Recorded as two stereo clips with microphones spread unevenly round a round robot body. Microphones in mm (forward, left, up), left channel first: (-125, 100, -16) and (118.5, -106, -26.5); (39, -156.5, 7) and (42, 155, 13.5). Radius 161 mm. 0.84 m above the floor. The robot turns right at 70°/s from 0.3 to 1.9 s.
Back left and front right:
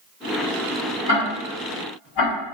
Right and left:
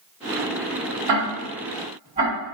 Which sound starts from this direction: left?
Ticking, at 1.1 s.